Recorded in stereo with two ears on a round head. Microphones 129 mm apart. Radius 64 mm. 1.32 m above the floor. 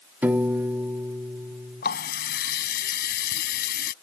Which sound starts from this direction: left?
A running tap, at 1.8 s.